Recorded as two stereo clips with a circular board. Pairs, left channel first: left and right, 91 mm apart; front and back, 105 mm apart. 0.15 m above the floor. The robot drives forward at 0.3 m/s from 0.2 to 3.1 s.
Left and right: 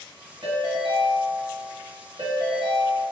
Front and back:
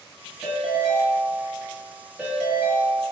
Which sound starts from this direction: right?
A ringtone, at 0.4 s.